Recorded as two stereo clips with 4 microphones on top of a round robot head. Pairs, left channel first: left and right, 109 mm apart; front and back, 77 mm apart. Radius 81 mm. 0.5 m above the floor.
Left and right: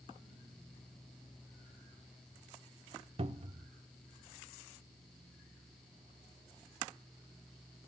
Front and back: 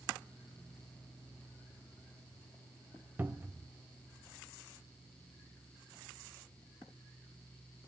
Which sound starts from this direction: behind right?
A cupboard door, at 3.2 s.